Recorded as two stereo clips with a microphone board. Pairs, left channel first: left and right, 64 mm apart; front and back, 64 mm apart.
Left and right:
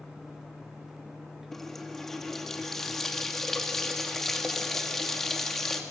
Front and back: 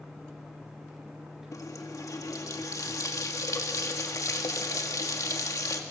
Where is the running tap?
5° left, 1.8 m.